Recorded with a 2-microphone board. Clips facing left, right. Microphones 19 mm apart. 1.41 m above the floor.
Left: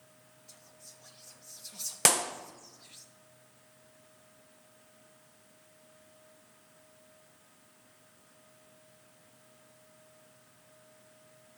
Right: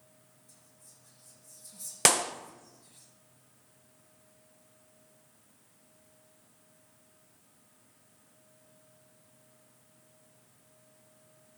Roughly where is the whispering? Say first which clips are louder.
Left 8 dB; left.